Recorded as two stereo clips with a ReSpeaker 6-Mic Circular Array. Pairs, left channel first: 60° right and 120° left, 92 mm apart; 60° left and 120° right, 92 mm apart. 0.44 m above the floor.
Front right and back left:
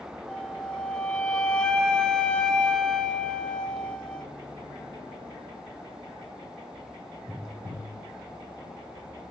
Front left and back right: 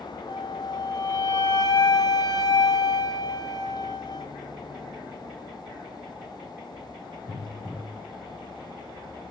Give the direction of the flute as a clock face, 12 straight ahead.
11 o'clock.